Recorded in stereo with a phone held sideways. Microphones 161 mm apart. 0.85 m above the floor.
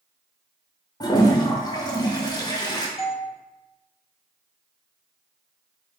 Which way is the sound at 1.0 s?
25° left (ahead or behind).